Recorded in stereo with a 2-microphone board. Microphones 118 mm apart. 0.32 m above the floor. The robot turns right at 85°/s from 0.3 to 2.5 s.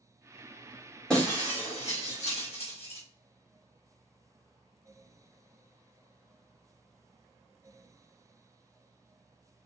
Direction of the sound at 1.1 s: 5° left (ahead or behind).